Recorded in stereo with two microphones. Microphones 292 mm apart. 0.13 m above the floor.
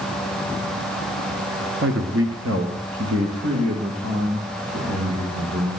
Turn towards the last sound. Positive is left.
turn(degrees=-50)  # may be behind; listen again after turning